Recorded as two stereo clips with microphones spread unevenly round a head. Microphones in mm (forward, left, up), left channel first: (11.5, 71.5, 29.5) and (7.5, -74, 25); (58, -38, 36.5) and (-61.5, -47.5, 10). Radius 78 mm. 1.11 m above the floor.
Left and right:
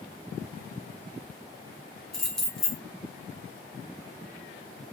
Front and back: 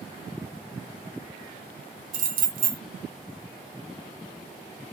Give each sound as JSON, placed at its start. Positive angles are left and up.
{"t": 2.1, "sound": "keys jangling", "azimuth_deg": 175, "distance_m": 0.6}